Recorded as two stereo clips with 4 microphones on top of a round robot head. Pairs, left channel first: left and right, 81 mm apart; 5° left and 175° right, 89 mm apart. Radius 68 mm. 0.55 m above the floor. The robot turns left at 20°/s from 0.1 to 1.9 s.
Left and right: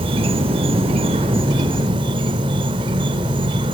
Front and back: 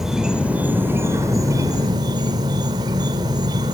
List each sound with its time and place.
0.0 s an insect: 90° right, 0.8 m; by 3.7 s 125° right, 0.8 m